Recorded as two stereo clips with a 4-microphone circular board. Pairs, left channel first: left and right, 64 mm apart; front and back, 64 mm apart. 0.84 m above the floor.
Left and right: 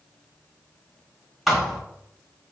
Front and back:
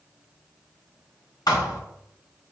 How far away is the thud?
About 1.0 m.